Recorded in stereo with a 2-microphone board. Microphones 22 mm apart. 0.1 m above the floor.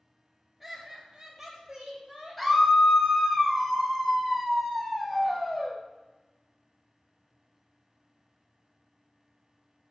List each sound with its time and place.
0.6 s laughter: 5° right (ahead or behind), 1.9 m; by 2.6 s 15° right (ahead or behind), 4.5 m
2.4 s a scream: 10° left (ahead or behind), 1.6 m